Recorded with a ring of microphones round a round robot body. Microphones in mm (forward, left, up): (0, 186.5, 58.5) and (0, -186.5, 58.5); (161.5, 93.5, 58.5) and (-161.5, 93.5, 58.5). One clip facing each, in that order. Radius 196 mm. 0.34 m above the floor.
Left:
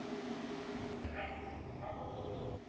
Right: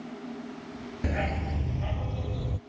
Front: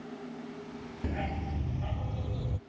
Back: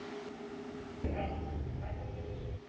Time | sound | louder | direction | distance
1.0 | a dog barking | right 13 dB, front 3 dB | 70° right | ?